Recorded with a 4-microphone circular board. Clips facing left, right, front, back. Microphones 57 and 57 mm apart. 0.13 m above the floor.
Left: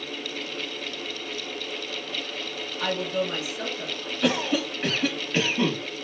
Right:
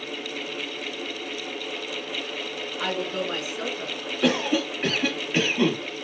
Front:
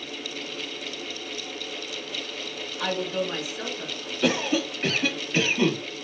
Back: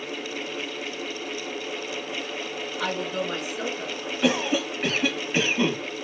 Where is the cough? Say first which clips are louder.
Right 2 dB, even; 170° right, 1.1 m.